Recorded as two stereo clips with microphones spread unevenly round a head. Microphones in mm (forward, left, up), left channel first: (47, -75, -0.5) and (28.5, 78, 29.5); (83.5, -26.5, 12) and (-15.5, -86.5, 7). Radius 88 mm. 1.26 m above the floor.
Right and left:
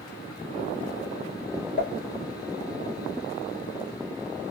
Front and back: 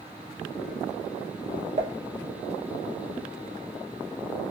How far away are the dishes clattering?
About 1.3 m.